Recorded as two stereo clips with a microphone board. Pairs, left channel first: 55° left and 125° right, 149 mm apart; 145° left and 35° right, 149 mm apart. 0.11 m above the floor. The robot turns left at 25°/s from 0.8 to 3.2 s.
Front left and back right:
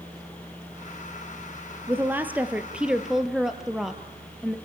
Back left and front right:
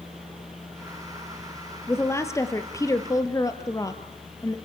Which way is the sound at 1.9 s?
175° right.